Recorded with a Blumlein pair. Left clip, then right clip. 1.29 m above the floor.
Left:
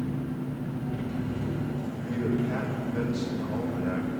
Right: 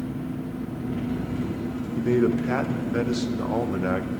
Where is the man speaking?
35° right, 0.8 m.